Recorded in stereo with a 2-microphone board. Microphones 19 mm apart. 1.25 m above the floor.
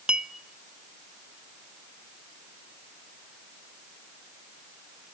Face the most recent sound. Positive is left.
turn(degrees=-75)  # may be behind; listen again after turning